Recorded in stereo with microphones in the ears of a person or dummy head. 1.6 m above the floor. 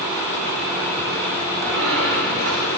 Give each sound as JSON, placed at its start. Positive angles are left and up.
{"t": 1.6, "sound": "a squeak", "side_deg": -70, "distance_m": 8.5}